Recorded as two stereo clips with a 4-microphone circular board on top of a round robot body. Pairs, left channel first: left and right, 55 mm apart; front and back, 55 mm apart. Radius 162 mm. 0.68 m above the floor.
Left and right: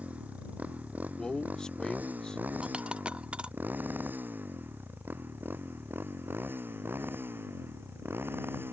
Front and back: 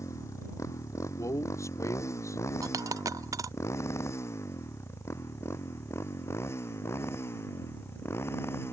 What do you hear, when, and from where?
0.0 s a motorcycle: 25° right; by 8.7 s 45° right
1.2 s a man speaking: 15° left
2.6 s a dropped coin: 165° right